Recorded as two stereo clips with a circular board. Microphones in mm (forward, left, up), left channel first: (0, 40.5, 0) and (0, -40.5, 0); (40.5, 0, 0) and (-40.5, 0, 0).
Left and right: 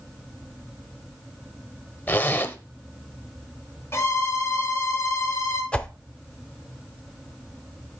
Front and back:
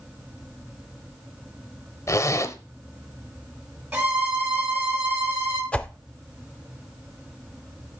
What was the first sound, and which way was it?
A zipper, 30° left.